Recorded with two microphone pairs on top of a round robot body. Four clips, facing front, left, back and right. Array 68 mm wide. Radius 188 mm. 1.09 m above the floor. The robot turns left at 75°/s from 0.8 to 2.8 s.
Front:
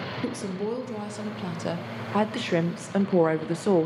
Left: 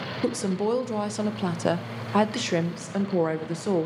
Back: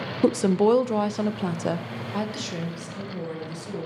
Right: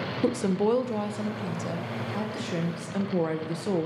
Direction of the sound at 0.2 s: 170° left.